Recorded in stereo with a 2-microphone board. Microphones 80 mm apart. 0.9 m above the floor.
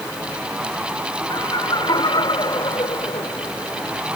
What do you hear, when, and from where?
1.3 s laughter: 75° left (ahead or behind); by 3.5 s 55° left (ahead or behind)